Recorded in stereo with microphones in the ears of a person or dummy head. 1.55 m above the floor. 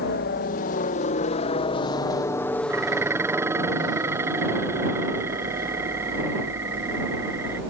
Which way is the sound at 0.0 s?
50° left (ahead or behind).